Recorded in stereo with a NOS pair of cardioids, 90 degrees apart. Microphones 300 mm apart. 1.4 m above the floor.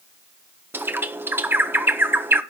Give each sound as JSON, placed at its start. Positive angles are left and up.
{"t": 0.7, "sound": "a bird", "azimuth_deg": -5, "distance_m": 1.3}